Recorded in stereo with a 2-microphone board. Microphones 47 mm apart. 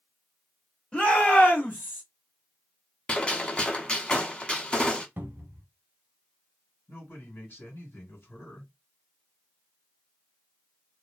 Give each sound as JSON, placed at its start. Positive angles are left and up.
{"t": 0.9, "sound": "a shout", "side_deg": 25, "distance_m": 1.4}
{"t": 3.1, "sound": "a gunshot", "side_deg": 20, "distance_m": 0.7}
{"t": 5.2, "sound": "a cupboard door", "side_deg": -50, "distance_m": 0.6}
{"t": 6.9, "sound": "a man speaking", "side_deg": 50, "distance_m": 1.7}